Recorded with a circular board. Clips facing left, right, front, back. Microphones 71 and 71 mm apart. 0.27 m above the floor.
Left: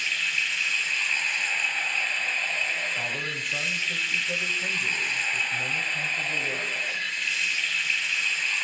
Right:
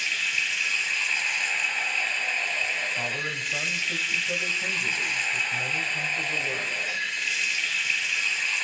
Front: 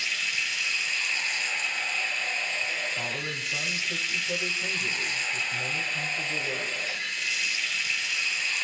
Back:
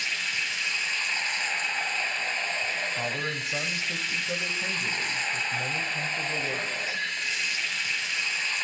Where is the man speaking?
170° right, 1.0 m.